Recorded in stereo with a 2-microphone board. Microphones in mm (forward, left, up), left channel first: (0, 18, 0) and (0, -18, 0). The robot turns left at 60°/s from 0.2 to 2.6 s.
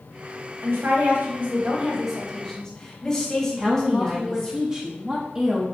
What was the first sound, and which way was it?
A woman speaking, 80° right.